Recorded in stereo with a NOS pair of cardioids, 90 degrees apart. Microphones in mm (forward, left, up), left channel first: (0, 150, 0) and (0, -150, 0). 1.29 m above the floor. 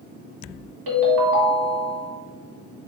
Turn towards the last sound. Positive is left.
turn(degrees=-60)